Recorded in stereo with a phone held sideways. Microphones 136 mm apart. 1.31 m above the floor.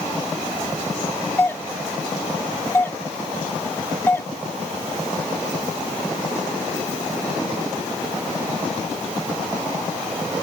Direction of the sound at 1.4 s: 20° left (ahead or behind).